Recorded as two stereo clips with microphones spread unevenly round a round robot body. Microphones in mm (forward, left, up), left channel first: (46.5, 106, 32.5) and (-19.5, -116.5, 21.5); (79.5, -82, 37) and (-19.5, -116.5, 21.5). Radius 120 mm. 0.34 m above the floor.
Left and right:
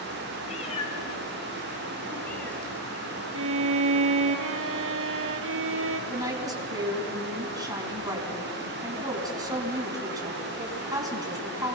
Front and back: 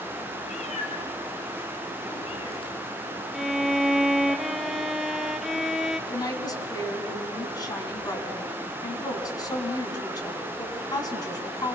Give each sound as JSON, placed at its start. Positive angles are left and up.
{"t": 0.5, "sound": "a cat meowing", "azimuth_deg": 10, "distance_m": 3.5}
{"t": 3.3, "sound": "a violin", "azimuth_deg": -70, "distance_m": 1.6}
{"t": 6.1, "sound": "a woman speaking", "azimuth_deg": -35, "distance_m": 4.5}